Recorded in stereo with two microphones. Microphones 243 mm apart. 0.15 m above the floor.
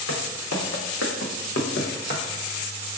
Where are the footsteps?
75° left (ahead or behind), 1.3 m; by 2.2 s 35° left (ahead or behind), 1.1 m.